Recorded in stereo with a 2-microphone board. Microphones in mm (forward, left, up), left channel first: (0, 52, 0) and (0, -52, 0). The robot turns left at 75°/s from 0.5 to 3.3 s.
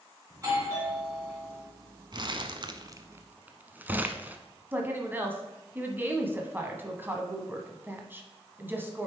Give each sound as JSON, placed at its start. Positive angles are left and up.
{"t": 0.3, "sound": "a doorbell", "azimuth_deg": -125, "distance_m": 2.5}
{"t": 2.1, "sound": "crumpling", "side_deg": -45, "distance_m": 0.6}
{"t": 4.7, "sound": "a woman speaking", "side_deg": -20, "distance_m": 1.0}